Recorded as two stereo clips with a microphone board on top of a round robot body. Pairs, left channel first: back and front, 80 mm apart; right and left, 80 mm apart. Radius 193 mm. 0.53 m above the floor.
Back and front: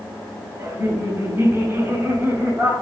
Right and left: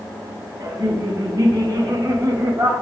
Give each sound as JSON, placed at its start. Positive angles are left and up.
{"t": 0.6, "sound": "laughter", "azimuth_deg": 60, "distance_m": 4.0}